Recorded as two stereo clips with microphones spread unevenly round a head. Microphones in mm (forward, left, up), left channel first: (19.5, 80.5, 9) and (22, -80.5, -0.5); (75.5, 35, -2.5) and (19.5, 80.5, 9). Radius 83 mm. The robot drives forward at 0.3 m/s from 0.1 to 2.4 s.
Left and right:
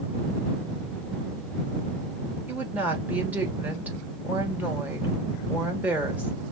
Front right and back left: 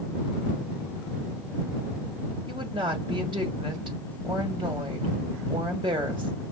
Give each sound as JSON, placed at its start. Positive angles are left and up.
{"t": 2.5, "sound": "a woman speaking", "azimuth_deg": -170, "distance_m": 1.4}